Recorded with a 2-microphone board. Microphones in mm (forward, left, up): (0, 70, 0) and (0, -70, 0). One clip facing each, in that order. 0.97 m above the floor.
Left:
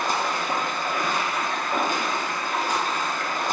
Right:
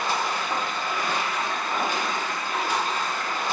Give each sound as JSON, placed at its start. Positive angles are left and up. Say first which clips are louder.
{"t": 0.0, "sound": "running water", "louder": "left 1 dB", "side_deg": 45, "distance_m": 0.7}